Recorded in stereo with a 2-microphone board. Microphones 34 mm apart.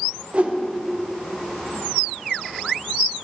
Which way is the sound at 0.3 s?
35° right (ahead or behind).